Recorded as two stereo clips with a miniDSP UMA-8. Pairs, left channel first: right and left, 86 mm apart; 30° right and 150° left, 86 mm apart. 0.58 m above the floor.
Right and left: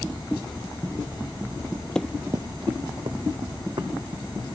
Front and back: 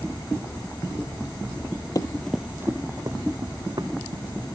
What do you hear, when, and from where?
1.9 s running footsteps: 10° right, 0.8 m; by 4.5 s 120° left, 3.5 m